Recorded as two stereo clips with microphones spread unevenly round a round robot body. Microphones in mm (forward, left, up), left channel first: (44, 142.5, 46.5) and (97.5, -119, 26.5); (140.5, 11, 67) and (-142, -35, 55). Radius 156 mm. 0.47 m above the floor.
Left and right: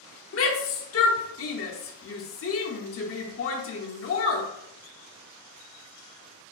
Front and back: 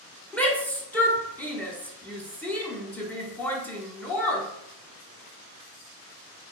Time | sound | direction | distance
0.3 | a shout | 95° left | 0.9 m